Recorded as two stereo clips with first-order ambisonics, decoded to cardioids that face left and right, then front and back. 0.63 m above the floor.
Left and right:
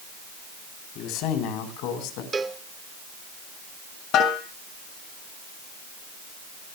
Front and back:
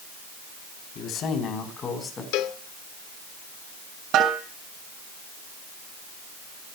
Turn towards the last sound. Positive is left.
turn(degrees=135)